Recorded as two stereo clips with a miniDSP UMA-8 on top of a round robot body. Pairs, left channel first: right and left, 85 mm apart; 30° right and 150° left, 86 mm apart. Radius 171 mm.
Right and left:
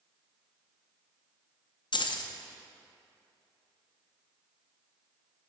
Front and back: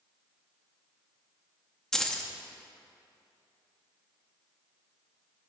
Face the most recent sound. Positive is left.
turn(degrees=-115)